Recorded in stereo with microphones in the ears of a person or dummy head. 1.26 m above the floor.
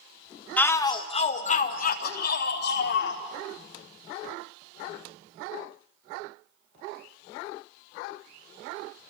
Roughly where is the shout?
Centre.